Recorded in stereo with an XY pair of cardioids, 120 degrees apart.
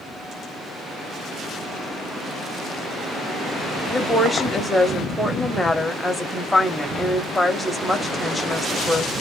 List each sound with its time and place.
3.9 s a woman speaking: 5° left, 0.9 m